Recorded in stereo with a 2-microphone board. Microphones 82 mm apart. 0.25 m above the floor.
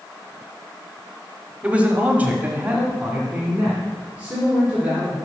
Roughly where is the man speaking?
Centre.